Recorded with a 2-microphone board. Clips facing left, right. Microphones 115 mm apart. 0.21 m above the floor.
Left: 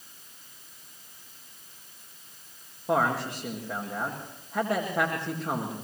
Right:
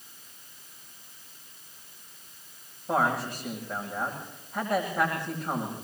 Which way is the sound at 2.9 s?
80° left.